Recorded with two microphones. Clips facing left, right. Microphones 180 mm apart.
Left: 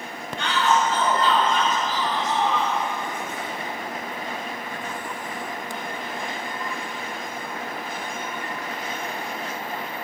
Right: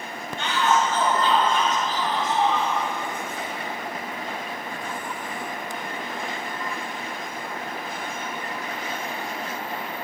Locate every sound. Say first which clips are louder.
0.4 s a shout: even; 25° right (ahead or behind), 7.5 m; by 2.8 s 30° right (ahead or behind), 6 m